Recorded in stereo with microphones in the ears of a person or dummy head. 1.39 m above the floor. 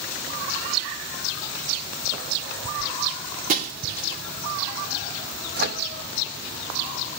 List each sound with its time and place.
3.5 s breaking glass: 50° right (ahead or behind), 2 m
5.6 s a microwave: 50° right (ahead or behind), 1.4 m